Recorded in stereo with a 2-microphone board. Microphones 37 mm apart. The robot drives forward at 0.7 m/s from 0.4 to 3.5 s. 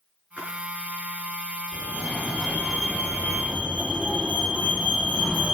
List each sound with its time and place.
0.4 s a splash: 50° right (ahead or behind), 5 m
1.7 s a fire alarm: 30° right (ahead or behind), 4 m; by 5.5 s 40° right (ahead or behind), 3 m